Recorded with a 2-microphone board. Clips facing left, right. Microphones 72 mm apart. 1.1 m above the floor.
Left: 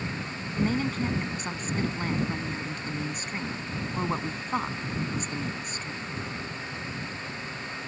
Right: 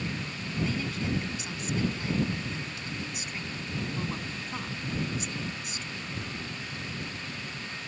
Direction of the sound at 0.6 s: 45° left (ahead or behind).